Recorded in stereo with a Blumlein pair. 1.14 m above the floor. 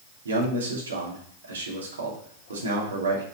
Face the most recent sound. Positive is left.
turn(degrees=-70)